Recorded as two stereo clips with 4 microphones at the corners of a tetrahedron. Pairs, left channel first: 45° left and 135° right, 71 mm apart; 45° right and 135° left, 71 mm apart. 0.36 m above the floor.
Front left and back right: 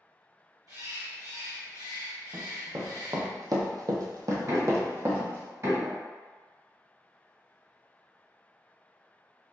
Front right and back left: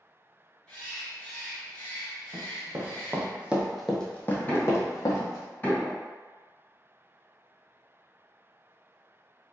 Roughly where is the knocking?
Right.